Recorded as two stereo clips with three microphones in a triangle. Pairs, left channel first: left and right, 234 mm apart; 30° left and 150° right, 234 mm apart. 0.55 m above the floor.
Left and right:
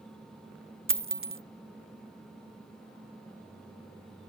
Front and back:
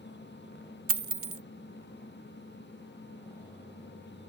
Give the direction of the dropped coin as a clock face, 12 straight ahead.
4 o'clock.